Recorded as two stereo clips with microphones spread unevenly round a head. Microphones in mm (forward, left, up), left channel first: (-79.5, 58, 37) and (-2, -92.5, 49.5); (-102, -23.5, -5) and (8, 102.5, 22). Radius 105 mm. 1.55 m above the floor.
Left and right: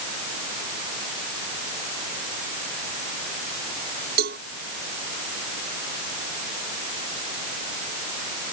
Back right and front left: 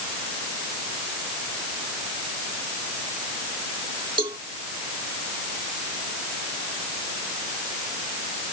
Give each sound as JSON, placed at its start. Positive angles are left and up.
{"t": 4.2, "sound": "a cowbell", "azimuth_deg": -20}